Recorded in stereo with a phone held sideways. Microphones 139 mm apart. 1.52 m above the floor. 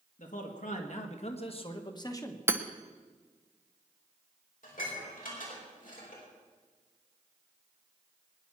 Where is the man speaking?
70° left (ahead or behind), 2.5 m; by 2.4 s 20° left (ahead or behind), 1.4 m.